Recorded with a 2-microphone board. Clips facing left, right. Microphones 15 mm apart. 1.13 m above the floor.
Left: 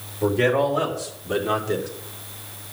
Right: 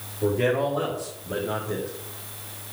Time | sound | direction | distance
0.2 | a man speaking | 30° left (ahead or behind) | 3.5 m